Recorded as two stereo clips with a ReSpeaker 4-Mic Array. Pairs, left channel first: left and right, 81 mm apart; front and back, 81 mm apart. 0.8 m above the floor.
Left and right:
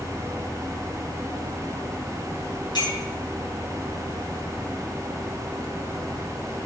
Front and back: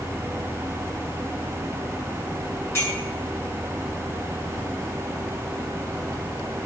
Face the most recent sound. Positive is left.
turn(degrees=60)